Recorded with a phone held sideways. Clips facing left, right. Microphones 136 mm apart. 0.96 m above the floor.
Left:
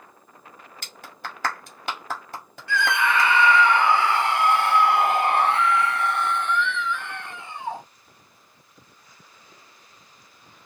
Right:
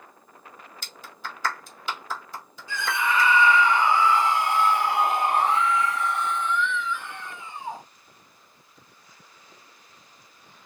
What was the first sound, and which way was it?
A clap, 65° left (ahead or behind).